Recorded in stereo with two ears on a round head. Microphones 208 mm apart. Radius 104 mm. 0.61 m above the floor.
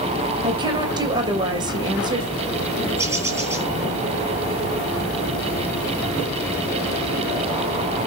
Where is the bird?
15° right (ahead or behind), 5.5 m.